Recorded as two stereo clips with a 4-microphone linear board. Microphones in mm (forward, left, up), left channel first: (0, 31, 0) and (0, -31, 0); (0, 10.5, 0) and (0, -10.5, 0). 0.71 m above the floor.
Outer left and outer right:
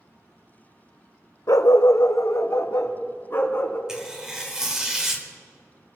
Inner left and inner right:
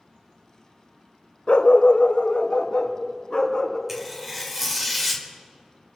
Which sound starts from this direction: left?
A dog barking, at 1.5 s.